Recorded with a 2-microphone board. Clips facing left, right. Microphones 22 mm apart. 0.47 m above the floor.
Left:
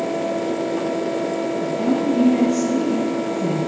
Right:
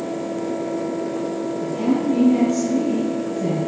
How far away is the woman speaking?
About 4 m.